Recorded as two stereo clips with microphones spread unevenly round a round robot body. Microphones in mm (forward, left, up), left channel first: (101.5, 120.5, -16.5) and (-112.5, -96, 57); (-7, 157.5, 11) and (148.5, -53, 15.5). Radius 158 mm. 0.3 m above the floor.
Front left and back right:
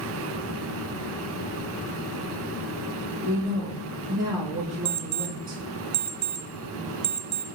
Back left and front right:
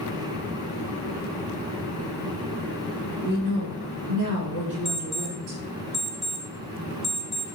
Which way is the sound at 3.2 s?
50° right.